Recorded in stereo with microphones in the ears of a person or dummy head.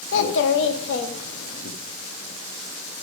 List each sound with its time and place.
0.1 s a child speaking: 75° left (ahead or behind), 1.5 m